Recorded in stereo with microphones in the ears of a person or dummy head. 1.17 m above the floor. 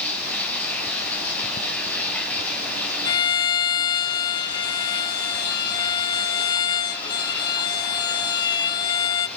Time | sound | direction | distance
0.0 | running water | 10° left (ahead or behind) | 3.5 m
3.0 | a violin | 25° left (ahead or behind) | 1.0 m